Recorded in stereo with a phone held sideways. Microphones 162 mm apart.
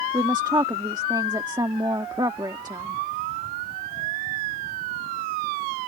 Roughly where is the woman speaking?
Right.